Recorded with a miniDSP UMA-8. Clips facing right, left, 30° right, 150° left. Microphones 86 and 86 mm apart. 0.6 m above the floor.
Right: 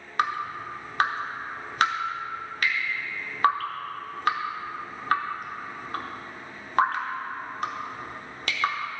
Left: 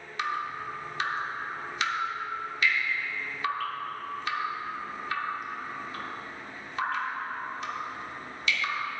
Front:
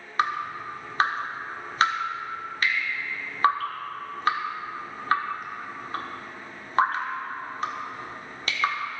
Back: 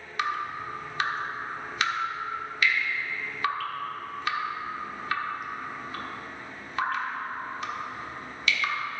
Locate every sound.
0.2 s dripping: 70° right, 1.3 m